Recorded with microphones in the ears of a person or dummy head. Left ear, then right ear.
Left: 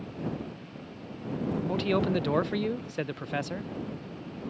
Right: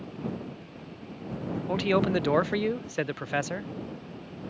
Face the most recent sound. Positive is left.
turn(degrees=-20)  # may be behind; listen again after turning